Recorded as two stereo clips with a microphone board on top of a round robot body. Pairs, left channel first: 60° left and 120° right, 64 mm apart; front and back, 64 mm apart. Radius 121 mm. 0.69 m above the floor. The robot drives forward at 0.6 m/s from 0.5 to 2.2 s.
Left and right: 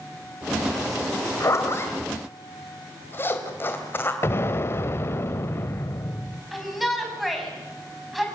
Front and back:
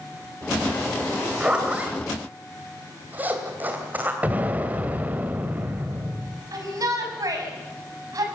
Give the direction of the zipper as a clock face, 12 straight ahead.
9 o'clock.